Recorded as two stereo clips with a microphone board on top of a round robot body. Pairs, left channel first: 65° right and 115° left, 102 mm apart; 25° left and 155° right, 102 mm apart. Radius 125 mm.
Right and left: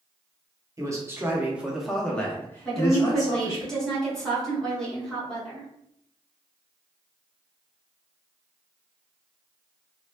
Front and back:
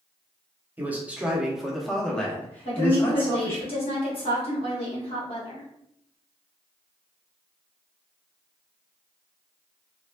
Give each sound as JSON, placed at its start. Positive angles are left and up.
{"t": 0.8, "sound": "a man speaking", "azimuth_deg": 140, "distance_m": 1.1}
{"t": 2.6, "sound": "a woman speaking", "azimuth_deg": 20, "distance_m": 1.6}